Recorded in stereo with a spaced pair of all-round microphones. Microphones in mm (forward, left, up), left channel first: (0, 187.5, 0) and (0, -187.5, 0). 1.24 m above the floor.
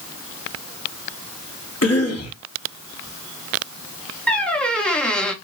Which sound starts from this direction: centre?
A squeak, at 4.3 s.